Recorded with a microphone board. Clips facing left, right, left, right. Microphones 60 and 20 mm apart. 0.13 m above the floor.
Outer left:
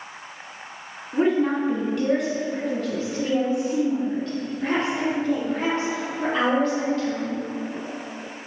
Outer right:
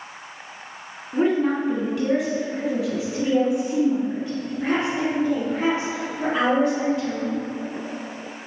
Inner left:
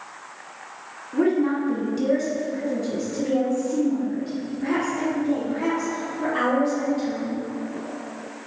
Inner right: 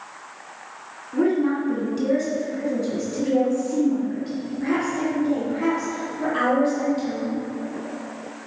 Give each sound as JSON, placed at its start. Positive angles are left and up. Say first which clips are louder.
{"t": 1.1, "sound": "a woman speaking", "louder": "even, even", "side_deg": 0, "distance_m": 1.6}